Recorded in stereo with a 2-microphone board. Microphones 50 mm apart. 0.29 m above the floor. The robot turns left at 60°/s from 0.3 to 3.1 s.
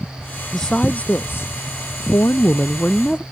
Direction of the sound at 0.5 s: 175° left.